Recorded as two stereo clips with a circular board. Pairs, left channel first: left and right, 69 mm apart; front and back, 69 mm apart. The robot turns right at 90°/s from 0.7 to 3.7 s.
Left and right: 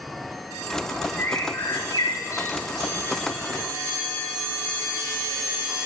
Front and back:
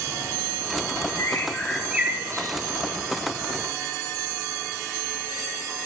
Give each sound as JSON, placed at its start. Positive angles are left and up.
{"t": 1.2, "sound": "a bird", "azimuth_deg": 30, "distance_m": 1.6}